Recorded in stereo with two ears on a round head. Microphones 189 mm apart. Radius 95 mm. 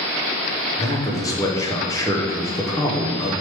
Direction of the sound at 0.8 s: 15° left (ahead or behind).